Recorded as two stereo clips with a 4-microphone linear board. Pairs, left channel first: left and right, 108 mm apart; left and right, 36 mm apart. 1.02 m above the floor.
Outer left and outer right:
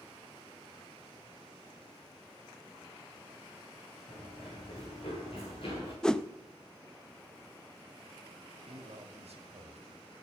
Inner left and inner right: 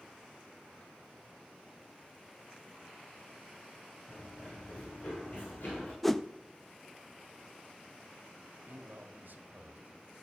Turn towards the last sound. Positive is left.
turn(degrees=-75)  # may be behind; listen again after turning